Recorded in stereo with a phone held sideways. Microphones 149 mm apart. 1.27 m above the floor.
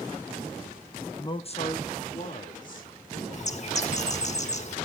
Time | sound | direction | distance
1.2 | a man speaking | 20° left (ahead or behind) | 0.6 m
3.3 | a bird | 45° left (ahead or behind) | 1.5 m